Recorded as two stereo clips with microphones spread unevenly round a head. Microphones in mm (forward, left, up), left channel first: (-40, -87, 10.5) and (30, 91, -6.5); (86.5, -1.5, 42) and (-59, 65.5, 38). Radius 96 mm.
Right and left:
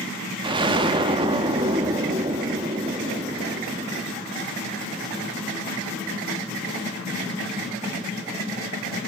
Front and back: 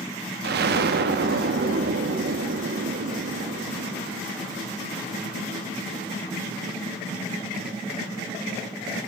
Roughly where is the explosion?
Behind left.